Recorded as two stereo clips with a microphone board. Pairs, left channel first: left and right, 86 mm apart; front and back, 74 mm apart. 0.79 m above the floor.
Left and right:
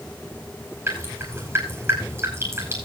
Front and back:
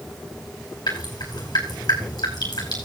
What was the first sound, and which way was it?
Dripping, 30° right.